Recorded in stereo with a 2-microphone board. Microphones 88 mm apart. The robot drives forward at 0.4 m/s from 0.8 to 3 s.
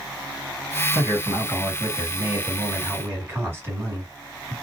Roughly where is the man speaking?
Right.